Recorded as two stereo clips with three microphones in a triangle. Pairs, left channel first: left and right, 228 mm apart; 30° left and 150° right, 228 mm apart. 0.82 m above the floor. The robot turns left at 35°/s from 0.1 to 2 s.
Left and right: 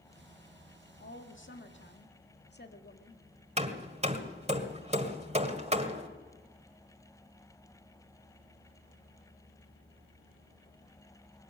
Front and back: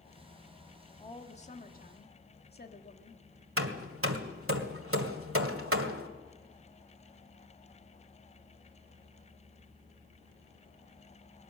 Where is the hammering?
150° right, 1.8 m.